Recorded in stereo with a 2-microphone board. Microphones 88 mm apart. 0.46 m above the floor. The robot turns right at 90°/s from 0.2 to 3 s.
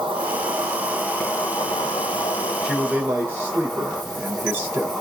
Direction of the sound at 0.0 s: 75° right.